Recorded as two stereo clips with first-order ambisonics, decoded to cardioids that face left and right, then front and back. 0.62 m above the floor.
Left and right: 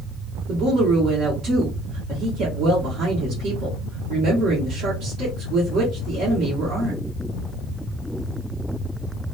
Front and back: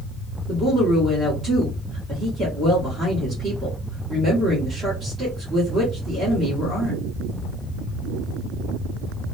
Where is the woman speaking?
130° right, 1.1 m.